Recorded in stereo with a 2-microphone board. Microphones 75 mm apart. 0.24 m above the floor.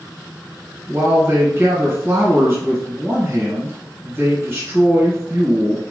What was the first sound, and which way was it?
A man speaking, 35° right (ahead or behind).